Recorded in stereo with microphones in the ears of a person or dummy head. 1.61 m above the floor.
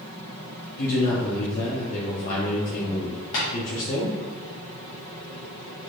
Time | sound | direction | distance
0.8 | a man speaking | 55° left (ahead or behind) | 0.8 m
3.3 | tapping | 35° left (ahead or behind) | 1.7 m